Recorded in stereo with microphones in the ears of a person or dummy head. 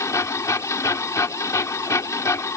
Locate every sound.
0.0 s a machine running: 20° left (ahead or behind)